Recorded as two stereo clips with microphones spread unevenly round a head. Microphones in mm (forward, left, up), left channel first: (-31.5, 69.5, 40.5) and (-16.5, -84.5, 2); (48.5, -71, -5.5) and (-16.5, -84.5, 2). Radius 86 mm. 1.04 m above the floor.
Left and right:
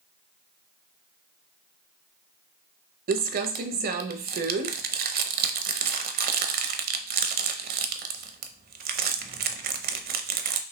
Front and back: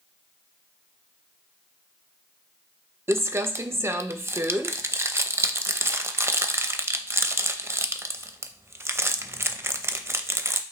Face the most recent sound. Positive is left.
turn(degrees=-110)